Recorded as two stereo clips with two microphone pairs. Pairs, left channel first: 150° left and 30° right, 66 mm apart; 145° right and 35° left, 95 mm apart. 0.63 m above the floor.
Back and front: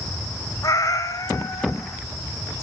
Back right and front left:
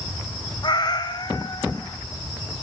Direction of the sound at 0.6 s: Straight behind.